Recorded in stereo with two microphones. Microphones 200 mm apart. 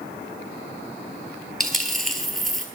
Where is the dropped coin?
Centre (ahead or behind), 1.2 m.